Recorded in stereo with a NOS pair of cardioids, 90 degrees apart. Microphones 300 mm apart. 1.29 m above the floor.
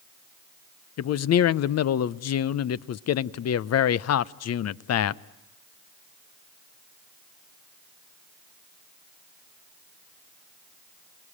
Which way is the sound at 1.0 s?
55° left.